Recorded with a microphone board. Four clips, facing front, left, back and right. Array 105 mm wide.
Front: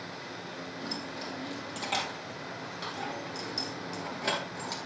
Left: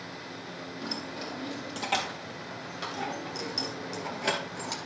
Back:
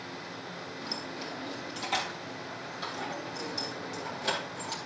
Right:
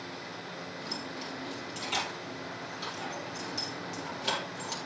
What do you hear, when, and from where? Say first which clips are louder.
0.8 s keys jangling: left 4 dB, front 1 dB; 80° left, 4 m; by 4.8 s 60° left, 2.5 m